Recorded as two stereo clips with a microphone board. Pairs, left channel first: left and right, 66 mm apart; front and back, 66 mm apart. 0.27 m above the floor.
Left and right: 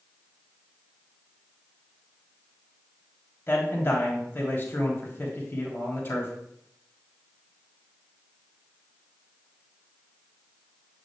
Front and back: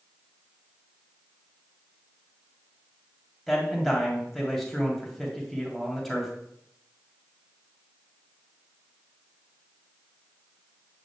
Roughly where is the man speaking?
Left.